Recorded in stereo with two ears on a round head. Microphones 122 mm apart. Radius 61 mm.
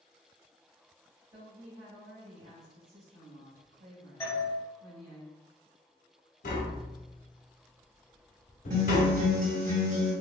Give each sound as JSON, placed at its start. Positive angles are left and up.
{"t": 1.3, "sound": "a woman speaking", "side_deg": -45, "distance_m": 1.9}
{"t": 4.2, "sound": "a doorbell", "side_deg": 20, "distance_m": 1.3}
{"t": 6.4, "sound": "tapping", "side_deg": 65, "distance_m": 0.8}
{"t": 8.7, "sound": "a guitar", "side_deg": -55, "distance_m": 1.4}